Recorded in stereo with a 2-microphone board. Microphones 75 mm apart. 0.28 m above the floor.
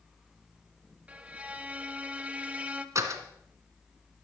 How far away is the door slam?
About 1.8 m.